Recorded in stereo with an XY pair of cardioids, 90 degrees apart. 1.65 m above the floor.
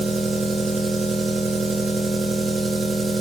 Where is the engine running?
50° right, 2.5 m.